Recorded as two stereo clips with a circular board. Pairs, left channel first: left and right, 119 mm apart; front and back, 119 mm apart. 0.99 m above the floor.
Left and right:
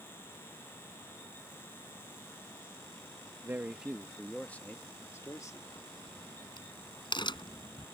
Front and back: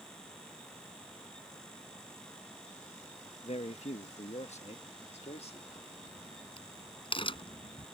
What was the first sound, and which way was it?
A man speaking, 20° right.